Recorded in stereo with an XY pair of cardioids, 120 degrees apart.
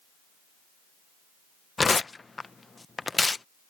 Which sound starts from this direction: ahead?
Tearing paper, at 1.8 s.